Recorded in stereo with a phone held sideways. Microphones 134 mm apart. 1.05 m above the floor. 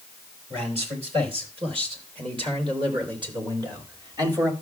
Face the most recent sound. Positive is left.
turn(degrees=-25)  # may be behind; listen again after turning